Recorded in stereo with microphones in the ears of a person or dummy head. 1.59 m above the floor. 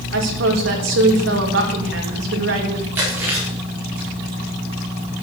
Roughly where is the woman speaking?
Right.